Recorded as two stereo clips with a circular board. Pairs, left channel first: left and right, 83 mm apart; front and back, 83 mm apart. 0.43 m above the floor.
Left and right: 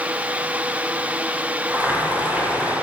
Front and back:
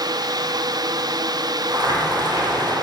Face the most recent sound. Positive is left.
turn(degrees=-160)